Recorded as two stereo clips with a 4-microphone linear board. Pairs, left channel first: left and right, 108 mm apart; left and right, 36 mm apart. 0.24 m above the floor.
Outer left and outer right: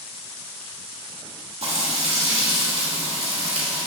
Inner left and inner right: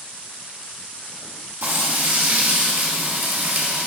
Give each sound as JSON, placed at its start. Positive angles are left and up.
{"t": 1.6, "sound": "frying", "side_deg": -65, "distance_m": 1.1}